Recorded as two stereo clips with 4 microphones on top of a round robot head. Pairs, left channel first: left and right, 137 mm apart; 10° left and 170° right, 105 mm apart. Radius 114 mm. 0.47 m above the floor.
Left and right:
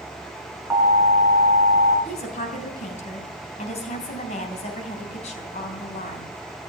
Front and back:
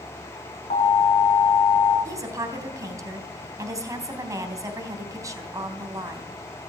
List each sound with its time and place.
0.7 s an alarm: 20° right, 6 m
2.0 s a woman speaking: 130° left, 3.5 m